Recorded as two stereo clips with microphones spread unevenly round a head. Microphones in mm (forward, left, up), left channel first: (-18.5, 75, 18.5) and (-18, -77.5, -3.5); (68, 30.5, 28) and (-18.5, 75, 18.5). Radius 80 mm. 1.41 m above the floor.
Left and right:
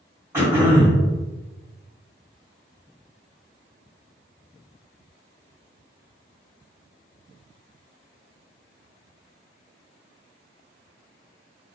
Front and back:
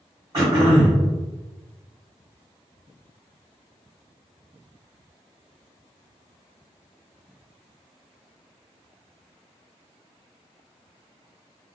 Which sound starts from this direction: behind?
Throat clearing, at 0.3 s.